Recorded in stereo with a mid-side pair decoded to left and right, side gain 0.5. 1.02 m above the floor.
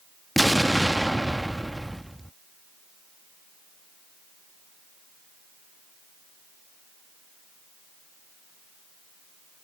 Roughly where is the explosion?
Ahead.